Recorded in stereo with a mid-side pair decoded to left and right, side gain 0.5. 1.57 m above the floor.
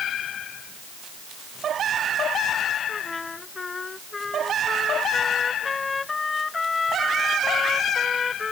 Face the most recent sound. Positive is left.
turn(degrees=25)